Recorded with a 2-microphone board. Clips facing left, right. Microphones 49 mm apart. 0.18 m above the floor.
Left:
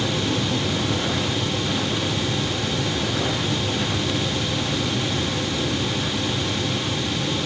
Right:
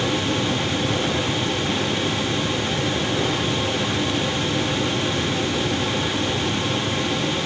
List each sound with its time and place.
Only background noise.